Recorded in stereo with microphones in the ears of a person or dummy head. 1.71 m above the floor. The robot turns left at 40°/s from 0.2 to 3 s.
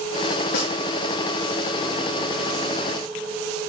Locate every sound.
0.5 s a snare drum: 60° left (ahead or behind), 2.5 m; by 0.7 s 65° left (ahead or behind), 2.5 m